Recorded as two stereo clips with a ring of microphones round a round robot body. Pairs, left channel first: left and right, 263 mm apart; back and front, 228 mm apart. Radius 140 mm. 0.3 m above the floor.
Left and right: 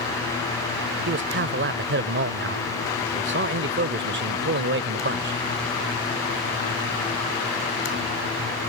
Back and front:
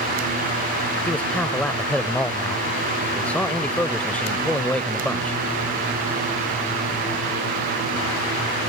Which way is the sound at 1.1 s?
100° right.